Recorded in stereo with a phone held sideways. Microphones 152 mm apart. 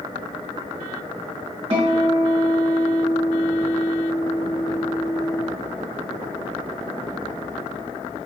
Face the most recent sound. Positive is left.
turn(degrees=-40)  # may be behind; listen again after turning